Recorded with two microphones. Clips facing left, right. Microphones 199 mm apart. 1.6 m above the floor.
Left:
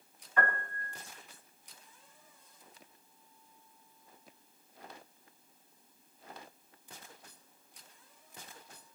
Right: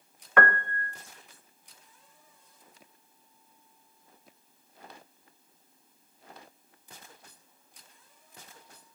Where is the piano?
80° right, 0.6 m.